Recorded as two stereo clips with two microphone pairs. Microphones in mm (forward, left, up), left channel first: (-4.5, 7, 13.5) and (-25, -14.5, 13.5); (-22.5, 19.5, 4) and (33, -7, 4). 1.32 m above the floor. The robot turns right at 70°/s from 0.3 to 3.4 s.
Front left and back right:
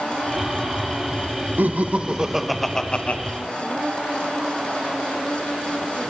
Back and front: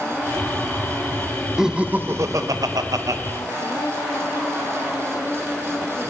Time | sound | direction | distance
1.6 | laughter | 110° right | 1.2 m